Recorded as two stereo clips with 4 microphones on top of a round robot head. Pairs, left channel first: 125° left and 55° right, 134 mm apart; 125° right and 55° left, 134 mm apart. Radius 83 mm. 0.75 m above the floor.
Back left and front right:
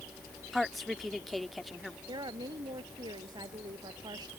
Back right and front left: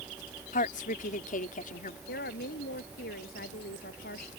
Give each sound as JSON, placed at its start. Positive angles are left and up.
{"t": 0.5, "sound": "a woman speaking", "azimuth_deg": -145}
{"t": 2.1, "sound": "a woman speaking", "azimuth_deg": -115}